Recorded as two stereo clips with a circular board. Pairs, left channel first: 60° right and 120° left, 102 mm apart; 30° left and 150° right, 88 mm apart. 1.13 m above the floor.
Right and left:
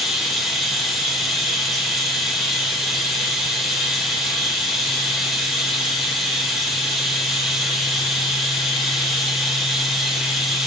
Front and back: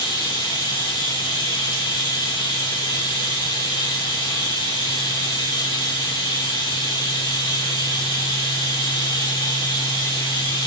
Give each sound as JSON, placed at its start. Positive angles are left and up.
{"t": 0.0, "sound": "running water", "azimuth_deg": 35, "distance_m": 1.7}